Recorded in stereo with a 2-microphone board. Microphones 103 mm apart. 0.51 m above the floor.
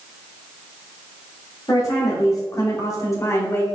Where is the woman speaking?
30° left (ahead or behind), 1.2 m; by 3.6 s 25° left (ahead or behind), 0.9 m.